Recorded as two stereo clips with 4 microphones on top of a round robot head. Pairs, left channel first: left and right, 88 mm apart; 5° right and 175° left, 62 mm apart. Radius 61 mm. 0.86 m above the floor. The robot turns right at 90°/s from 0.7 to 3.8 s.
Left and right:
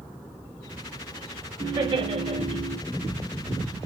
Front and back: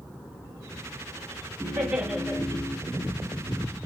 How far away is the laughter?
About 2.5 m.